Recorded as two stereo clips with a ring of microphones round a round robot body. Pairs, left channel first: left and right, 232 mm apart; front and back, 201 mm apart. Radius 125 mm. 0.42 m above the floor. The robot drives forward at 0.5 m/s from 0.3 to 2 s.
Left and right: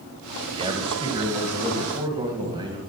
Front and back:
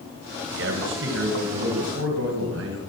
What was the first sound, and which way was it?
A man speaking, 155° right.